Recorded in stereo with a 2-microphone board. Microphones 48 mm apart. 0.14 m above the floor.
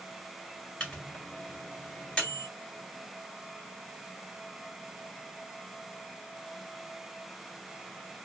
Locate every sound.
0.8 s a microwave: 20° left (ahead or behind), 1.4 m